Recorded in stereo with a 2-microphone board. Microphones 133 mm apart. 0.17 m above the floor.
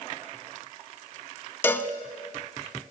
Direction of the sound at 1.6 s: 15° left (ahead or behind).